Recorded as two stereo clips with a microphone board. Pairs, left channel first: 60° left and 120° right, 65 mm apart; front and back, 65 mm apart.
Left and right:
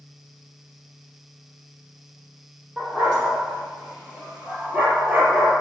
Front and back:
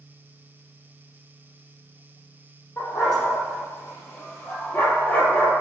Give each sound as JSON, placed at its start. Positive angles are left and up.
{"t": 2.8, "sound": "a dog barking", "azimuth_deg": -40, "distance_m": 6.5}